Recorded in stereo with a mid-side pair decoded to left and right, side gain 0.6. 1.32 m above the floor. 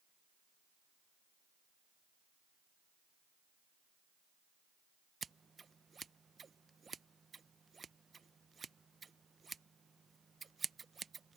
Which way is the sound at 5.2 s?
25° right.